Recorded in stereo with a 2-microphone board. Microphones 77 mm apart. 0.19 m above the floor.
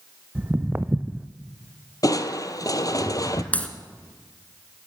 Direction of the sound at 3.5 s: 20° left (ahead or behind).